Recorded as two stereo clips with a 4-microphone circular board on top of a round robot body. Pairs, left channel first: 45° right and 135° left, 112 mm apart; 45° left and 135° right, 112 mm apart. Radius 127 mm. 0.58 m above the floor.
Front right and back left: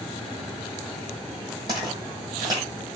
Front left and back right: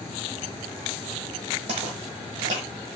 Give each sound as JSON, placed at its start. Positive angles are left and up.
{"t": 1.7, "sound": "footsteps", "azimuth_deg": -170, "distance_m": 1.2}